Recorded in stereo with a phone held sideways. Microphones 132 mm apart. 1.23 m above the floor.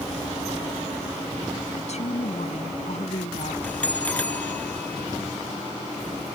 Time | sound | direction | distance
1.7 | a woman speaking | 55° left (ahead or behind) | ?
3.6 | a bell | 10° left (ahead or behind) | ?